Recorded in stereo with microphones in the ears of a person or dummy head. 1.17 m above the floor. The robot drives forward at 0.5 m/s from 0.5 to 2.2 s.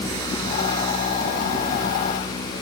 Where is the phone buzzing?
No phone buzzing in this recording.